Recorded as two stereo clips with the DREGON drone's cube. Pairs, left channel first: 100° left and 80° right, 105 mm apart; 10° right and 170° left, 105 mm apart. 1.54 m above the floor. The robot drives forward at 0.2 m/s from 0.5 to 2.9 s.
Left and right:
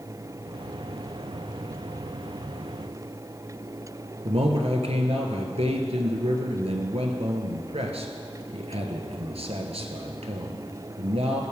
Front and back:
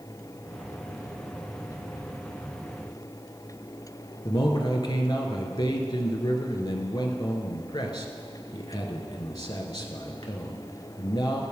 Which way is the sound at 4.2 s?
65° right.